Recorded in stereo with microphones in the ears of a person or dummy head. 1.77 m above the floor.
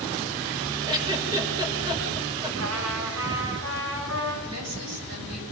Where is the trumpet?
85° right, 5 m.